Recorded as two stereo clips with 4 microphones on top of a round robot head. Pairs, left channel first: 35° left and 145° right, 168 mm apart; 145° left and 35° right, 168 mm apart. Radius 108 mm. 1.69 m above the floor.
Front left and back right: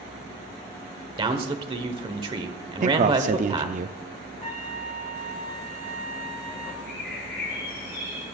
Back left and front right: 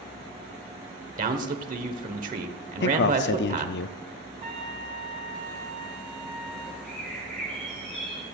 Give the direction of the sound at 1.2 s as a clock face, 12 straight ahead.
3 o'clock.